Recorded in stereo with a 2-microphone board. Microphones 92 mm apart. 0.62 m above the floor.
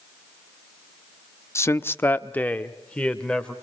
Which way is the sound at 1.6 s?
25° left (ahead or behind).